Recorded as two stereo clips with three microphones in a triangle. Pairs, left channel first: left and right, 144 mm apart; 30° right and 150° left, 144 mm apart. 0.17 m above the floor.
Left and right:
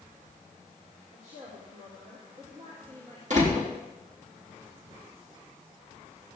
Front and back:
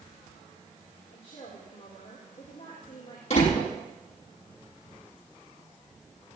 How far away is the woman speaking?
About 5 m.